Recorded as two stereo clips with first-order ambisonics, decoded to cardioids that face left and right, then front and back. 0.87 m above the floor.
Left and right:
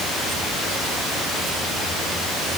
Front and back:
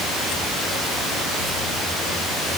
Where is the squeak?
No squeak in this recording.